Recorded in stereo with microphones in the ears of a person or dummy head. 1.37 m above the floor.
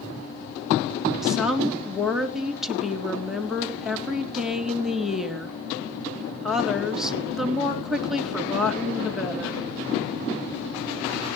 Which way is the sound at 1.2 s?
Centre (ahead or behind).